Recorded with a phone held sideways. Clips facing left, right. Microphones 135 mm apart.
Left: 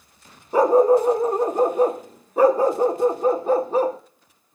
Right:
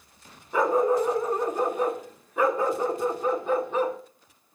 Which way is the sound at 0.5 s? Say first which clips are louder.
Left 7 dB; 35° left (ahead or behind).